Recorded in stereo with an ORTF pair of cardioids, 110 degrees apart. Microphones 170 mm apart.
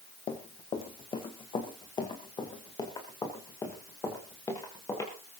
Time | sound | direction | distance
0.3 | running footsteps | 45° left | 3 m